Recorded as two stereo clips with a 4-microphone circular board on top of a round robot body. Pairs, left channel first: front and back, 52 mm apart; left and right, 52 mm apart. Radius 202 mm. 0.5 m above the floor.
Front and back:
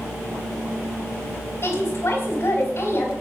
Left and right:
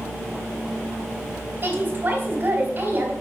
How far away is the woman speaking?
About 3 m.